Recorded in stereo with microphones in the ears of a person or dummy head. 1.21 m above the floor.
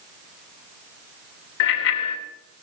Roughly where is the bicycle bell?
Left.